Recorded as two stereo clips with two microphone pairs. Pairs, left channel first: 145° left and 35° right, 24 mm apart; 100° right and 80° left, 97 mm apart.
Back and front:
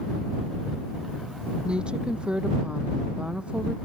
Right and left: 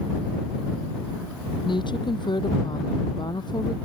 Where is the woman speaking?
70° right; by 3.7 s 60° right.